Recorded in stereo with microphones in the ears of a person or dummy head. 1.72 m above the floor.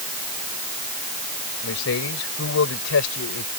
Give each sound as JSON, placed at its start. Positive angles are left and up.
{"t": 1.6, "sound": "a man speaking", "side_deg": 70}